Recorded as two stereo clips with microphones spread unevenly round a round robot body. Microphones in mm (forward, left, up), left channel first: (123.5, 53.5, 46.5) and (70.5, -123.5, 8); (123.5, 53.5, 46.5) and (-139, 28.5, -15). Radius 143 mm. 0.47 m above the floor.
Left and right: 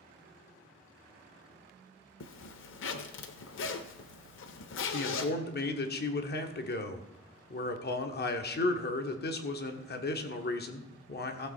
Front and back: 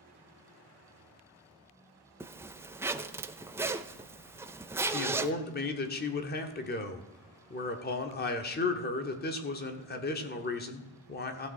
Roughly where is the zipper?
Left.